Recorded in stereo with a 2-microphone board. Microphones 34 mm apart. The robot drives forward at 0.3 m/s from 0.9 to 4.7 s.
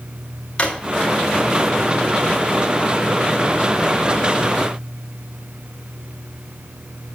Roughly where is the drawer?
Left.